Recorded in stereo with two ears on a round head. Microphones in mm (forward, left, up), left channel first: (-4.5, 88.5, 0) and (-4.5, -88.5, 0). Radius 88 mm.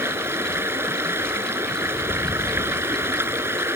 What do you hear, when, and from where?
0.0 s running water: 15° right (ahead or behind)